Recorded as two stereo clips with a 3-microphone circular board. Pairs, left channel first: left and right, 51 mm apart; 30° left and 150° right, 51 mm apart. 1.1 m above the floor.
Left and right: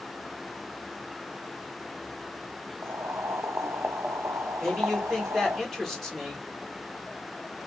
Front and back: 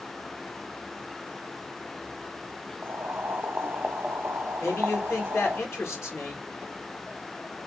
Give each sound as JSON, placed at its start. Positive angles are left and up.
{"t": 2.8, "sound": "boiling", "azimuth_deg": -110, "distance_m": 0.6}
{"t": 4.6, "sound": "a man speaking", "azimuth_deg": 5, "distance_m": 2.0}